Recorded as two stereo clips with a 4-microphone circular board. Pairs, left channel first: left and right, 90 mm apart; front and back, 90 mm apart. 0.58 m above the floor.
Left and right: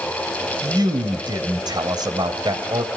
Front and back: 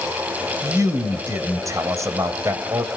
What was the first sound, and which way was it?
A man speaking, 125° right.